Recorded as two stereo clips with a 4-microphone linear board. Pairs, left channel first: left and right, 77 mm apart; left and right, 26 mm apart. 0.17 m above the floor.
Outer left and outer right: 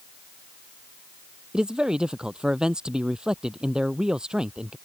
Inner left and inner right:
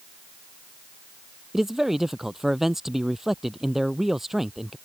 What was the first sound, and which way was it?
A man speaking, 10° right (ahead or behind).